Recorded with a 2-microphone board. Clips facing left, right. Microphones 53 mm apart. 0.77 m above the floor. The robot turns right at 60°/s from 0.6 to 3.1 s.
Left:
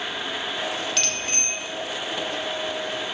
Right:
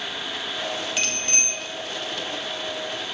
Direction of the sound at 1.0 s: 10° right.